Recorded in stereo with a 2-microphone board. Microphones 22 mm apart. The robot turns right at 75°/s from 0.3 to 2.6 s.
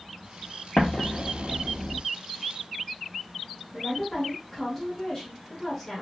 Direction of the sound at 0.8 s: 65° left (ahead or behind).